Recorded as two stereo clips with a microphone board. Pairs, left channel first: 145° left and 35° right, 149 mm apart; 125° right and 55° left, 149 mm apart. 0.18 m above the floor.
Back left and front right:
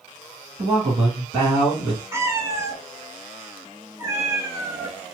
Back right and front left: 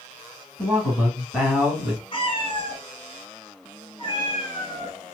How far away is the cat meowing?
About 0.8 m.